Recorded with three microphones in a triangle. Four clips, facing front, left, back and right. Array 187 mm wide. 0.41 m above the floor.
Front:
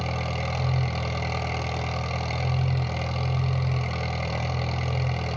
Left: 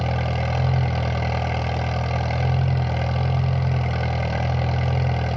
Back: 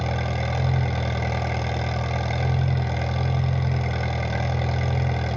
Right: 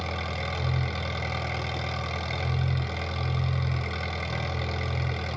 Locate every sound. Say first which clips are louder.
0.0 s an engine running: left 7 dB, back 3 dB; 110° left, 1.5 m